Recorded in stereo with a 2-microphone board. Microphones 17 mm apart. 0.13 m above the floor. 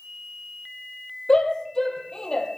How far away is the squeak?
No squeak in this recording.